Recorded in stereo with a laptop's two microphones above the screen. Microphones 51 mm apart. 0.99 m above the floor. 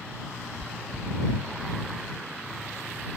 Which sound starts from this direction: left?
Chewing, at 0.6 s.